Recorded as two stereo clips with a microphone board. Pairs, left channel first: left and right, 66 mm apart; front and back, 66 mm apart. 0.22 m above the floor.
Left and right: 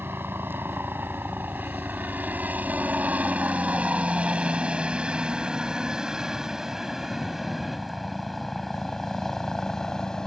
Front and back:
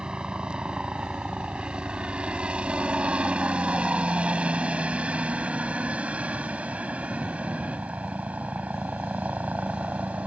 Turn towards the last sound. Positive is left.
turn(degrees=155)